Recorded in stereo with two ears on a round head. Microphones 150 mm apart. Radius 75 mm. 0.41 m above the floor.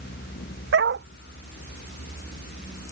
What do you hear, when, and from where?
0.7 s a dog barking: 75° right (ahead or behind)